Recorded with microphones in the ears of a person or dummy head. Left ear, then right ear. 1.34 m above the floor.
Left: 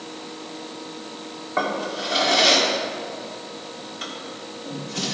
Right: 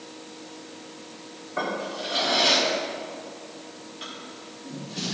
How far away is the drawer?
About 2 m.